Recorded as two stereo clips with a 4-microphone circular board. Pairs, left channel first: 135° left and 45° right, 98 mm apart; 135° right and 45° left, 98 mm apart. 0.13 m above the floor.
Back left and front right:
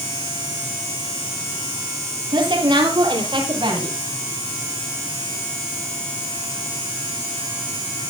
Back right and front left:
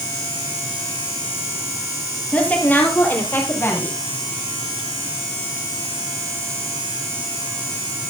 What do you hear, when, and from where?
2.3 s a woman speaking: 60° right, 3 m; by 3.9 s 70° right, 4.5 m